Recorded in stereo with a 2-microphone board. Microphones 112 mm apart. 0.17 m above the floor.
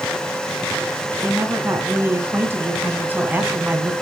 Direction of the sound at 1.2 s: 20° right (ahead or behind).